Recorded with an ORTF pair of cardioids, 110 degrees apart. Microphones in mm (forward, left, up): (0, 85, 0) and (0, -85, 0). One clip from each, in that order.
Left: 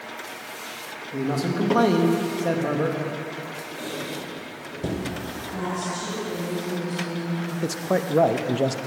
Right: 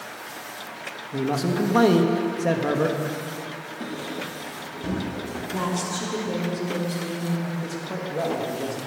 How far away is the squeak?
About 2.5 m.